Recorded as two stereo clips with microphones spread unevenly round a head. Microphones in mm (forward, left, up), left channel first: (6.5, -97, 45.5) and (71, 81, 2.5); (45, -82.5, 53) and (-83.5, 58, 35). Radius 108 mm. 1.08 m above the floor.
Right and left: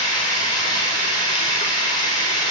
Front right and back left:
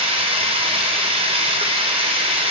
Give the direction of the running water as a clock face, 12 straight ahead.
6 o'clock.